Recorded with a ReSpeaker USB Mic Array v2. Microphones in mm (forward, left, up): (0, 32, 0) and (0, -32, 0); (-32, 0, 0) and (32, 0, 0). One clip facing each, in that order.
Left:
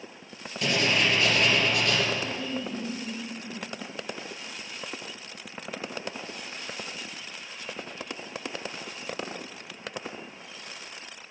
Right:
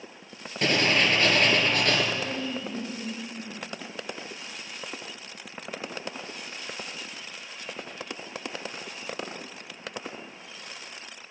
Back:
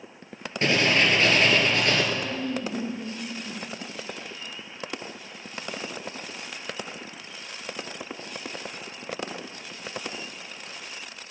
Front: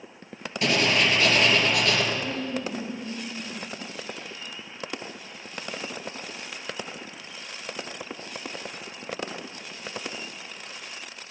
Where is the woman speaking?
170° right, 4 m.